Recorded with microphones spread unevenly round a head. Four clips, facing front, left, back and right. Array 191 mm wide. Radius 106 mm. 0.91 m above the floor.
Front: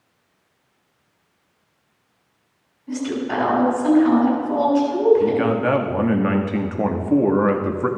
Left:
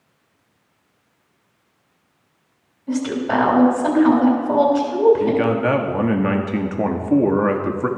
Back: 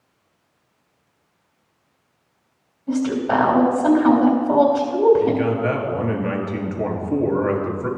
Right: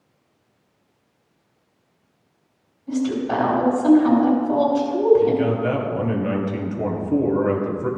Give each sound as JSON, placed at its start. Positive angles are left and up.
{"t": 2.9, "sound": "a woman speaking", "azimuth_deg": 130, "distance_m": 3.5}
{"t": 5.2, "sound": "a man speaking", "azimuth_deg": 60, "distance_m": 1.7}